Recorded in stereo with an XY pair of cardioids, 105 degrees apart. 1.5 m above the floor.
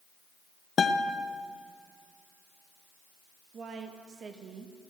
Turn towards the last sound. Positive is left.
turn(degrees=-50)